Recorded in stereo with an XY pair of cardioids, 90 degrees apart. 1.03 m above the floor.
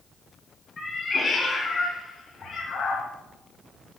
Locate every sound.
0.8 s a cat meowing: 35° left, 3.5 m; by 3.1 s 65° left, 3.5 m